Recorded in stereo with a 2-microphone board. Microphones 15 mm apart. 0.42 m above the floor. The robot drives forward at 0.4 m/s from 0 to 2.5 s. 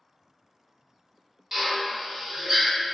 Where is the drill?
25° right (ahead or behind), 0.9 m; by 2.7 s 35° right (ahead or behind), 0.7 m.